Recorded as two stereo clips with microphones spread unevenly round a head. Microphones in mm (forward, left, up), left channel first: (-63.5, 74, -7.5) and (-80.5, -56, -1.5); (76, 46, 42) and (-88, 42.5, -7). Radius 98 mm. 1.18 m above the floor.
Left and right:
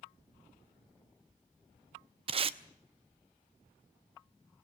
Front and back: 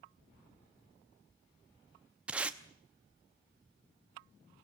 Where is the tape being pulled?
80° right, 0.7 m.